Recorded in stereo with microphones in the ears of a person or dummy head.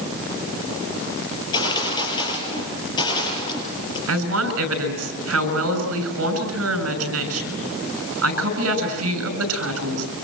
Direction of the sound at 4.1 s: 80° right.